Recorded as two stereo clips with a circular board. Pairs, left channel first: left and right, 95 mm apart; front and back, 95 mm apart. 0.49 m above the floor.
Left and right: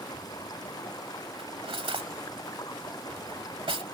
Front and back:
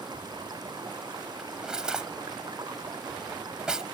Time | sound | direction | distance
0.0 | running water | 140° left | ?
1.4 | cutlery clinking | 100° right | ?